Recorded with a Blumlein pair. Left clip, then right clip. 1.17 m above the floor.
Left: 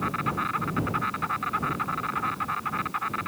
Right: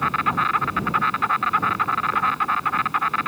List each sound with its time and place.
0.0 s an insect: 65° right